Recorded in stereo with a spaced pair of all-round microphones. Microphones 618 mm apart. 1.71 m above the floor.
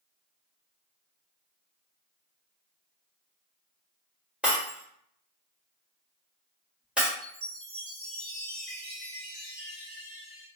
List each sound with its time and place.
4.4 s breaking glass: centre (ahead or behind), 1.1 m
7.2 s a chime: 60° right (ahead or behind), 1.1 m